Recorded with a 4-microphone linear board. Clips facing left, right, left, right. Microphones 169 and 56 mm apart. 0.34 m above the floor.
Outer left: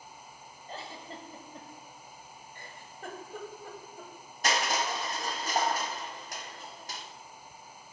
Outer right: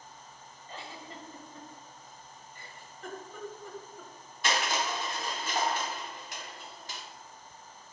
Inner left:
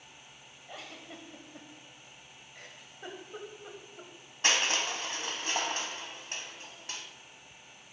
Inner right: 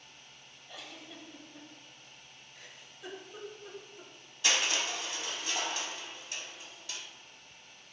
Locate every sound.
0.7 s a giggle: 40° left (ahead or behind), 1.2 m
2.5 s a giggle: 50° left (ahead or behind), 1.2 m
4.4 s crushing: 45° left (ahead or behind), 1.2 m